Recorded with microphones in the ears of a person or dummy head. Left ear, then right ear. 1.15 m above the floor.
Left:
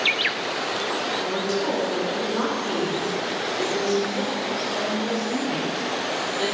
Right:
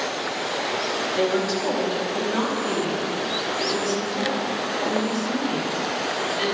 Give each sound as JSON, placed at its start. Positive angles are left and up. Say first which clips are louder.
{"t": 1.2, "sound": "a woman speaking", "louder": "right 2 dB", "side_deg": -55, "distance_m": 2.5}